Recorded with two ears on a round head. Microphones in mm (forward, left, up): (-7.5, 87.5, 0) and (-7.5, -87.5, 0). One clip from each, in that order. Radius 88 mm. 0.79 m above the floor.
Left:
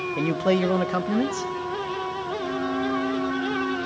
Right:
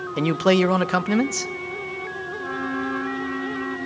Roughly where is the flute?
Right.